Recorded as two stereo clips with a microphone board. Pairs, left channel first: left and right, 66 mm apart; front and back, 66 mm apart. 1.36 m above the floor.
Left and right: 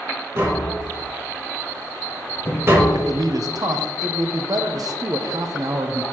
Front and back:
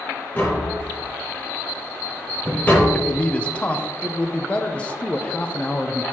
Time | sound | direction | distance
0.3 | tapping | 55° right | 1.5 m
2.9 | a man speaking | 70° right | 0.6 m